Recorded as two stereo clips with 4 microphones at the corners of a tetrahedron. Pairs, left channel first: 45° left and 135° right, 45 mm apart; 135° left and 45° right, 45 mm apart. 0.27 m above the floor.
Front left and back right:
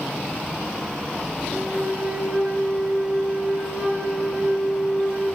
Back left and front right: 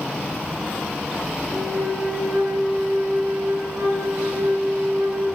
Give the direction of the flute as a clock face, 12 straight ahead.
2 o'clock.